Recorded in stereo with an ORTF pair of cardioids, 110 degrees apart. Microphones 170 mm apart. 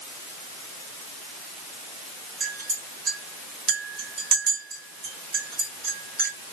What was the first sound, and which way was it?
A clink, 65° right.